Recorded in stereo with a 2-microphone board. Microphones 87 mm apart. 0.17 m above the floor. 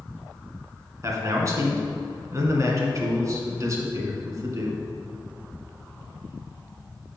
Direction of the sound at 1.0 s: 40° right (ahead or behind).